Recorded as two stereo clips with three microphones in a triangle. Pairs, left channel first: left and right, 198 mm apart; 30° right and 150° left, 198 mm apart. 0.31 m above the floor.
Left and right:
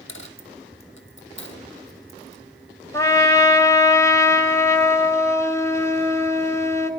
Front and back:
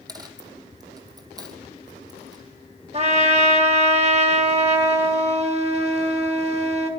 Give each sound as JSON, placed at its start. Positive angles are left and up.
{"t": 0.1, "sound": "a dropped coin", "azimuth_deg": 80, "distance_m": 1.2}
{"t": 2.9, "sound": "a trumpet", "azimuth_deg": 155, "distance_m": 1.4}